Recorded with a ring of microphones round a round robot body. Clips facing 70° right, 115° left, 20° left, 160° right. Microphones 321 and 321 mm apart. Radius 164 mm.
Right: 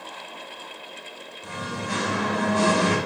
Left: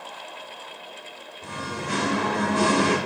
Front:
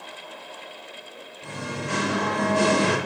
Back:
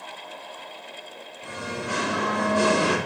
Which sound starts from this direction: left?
Singing, at 1.4 s.